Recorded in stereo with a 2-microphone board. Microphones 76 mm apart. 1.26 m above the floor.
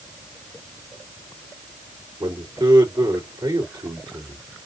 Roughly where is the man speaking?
Right.